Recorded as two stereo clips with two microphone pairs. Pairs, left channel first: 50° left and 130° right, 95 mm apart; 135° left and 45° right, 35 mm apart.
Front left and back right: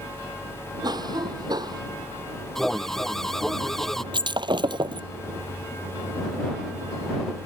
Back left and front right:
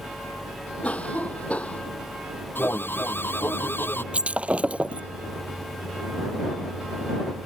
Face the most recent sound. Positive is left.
turn(degrees=-95)